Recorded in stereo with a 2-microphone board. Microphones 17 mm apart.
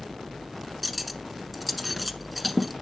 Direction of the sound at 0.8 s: Centre (ahead or behind).